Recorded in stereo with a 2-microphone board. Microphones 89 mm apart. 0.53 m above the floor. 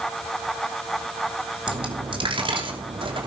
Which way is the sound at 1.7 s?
80° right.